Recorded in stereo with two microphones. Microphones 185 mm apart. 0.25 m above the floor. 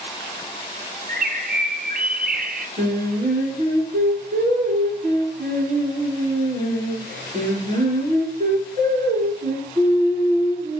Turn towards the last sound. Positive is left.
turn(degrees=-50)  # may be behind; listen again after turning